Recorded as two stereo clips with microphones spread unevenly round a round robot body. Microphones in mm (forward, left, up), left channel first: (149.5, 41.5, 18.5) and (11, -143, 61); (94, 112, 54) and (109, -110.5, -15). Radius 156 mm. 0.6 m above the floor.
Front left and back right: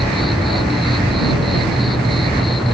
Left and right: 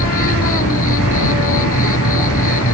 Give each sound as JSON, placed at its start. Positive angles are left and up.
{"t": 0.0, "sound": "an insect", "azimuth_deg": 145}